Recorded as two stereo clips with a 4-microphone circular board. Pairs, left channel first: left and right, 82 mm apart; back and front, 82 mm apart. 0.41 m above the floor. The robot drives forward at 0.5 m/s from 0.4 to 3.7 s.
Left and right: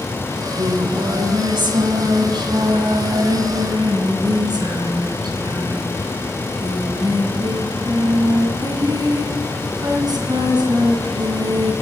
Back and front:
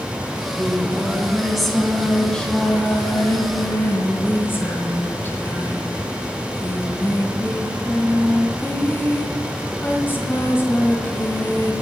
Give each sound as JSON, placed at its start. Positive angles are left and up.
{"t": 0.3, "sound": "singing", "azimuth_deg": -75, "distance_m": 2.0}